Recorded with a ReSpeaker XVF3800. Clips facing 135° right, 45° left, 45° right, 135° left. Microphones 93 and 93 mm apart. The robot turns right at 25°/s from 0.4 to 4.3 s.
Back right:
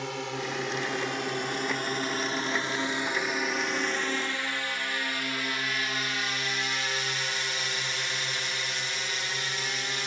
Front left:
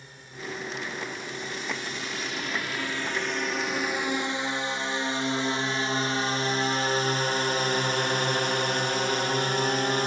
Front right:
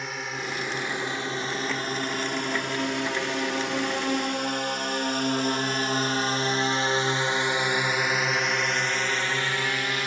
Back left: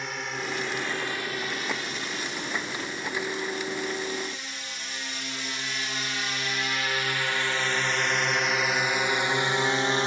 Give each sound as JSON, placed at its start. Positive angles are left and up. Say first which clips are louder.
{"t": 0.0, "sound": "a drone", "louder": "back right 9 dB, even", "azimuth_deg": -135}